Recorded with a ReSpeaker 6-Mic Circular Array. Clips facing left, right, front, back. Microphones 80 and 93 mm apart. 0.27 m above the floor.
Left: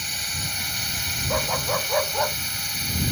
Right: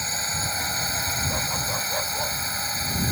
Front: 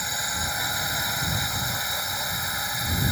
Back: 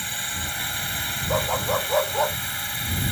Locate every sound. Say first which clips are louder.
0.0 s a drone: right 4 dB, front 2 dB; 60° right
1.3 s a dog barking: left 4 dB, back 7 dB; 155° left